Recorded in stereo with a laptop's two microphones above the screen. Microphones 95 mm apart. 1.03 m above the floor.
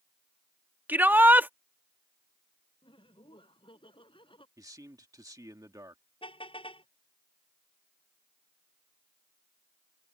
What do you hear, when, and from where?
0.9 s a shout: 20° right (ahead or behind)
2.8 s laughter: 65° left (ahead or behind)
4.6 s a man speaking: 40° right (ahead or behind)
6.2 s a car horn: 65° left (ahead or behind)